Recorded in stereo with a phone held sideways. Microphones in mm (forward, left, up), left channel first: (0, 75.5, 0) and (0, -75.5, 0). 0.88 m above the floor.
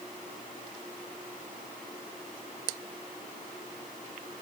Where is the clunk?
No clunk in this recording.